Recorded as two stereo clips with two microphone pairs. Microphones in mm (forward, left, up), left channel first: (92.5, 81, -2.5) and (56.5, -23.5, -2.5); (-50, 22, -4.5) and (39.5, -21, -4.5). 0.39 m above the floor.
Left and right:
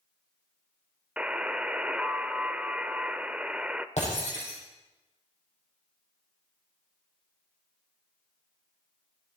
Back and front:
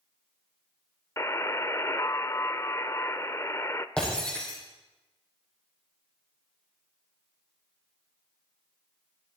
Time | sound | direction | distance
1.2 | a buzzer | 170° left | 0.7 m
4.0 | breaking glass | 75° left | 6.5 m